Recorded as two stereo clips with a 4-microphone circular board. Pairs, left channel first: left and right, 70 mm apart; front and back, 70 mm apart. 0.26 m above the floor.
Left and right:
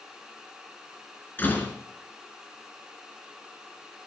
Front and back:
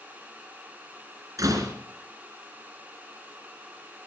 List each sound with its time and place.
1.4 s a door slam: 150° left, 3 m